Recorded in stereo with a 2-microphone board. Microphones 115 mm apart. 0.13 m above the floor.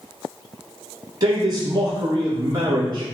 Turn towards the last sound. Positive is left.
turn(degrees=-40)  # may be behind; listen again after turning